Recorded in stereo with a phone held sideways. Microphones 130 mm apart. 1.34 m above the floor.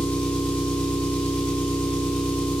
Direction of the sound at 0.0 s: 5° left (ahead or behind).